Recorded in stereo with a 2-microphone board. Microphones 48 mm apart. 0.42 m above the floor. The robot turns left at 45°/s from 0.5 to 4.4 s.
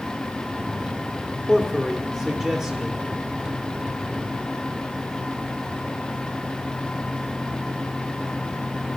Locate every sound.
1.5 s a man speaking: 5° left (ahead or behind), 1.1 m; by 3.0 s 20° right (ahead or behind), 1.1 m